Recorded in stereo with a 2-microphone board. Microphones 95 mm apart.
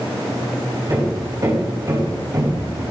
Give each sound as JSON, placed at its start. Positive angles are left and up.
{"t": 0.9, "sound": "hammering", "side_deg": -40, "distance_m": 4.0}